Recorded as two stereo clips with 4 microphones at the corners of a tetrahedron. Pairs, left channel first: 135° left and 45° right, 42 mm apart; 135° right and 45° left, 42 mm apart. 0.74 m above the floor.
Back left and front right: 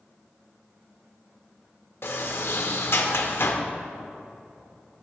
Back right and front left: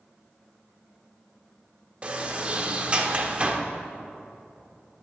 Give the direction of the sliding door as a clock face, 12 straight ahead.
8 o'clock.